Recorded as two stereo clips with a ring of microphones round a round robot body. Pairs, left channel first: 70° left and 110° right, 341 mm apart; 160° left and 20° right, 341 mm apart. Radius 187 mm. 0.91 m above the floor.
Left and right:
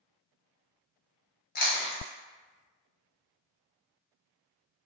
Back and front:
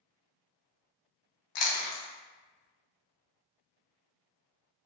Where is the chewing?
130° left, 0.7 m.